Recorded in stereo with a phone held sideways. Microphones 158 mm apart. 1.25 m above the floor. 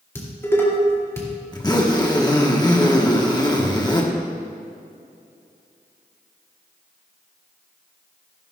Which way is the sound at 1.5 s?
25° left (ahead or behind).